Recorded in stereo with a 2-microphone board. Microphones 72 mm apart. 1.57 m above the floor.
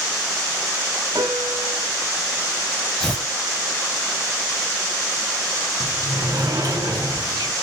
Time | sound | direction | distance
1.1 | a piano | 65° right (ahead or behind) | 9.5 m
3.0 | tearing paper | 10° left (ahead or behind) | 3 m
5.8 | a sliding door | 60° right (ahead or behind) | 8 m